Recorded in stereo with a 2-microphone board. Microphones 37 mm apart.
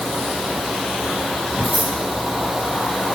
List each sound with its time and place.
1.6 s scissors: 15° left (ahead or behind), 8 m